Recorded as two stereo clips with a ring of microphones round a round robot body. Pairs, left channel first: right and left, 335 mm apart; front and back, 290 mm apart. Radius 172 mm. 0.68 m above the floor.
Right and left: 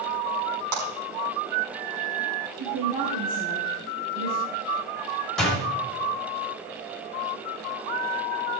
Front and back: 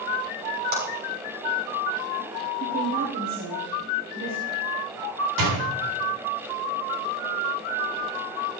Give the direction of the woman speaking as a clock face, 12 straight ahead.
7 o'clock.